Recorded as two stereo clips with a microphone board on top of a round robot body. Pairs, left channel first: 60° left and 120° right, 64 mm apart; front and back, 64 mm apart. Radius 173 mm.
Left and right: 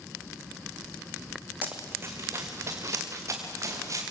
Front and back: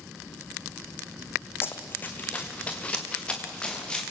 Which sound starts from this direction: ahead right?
Running footsteps, at 1.6 s.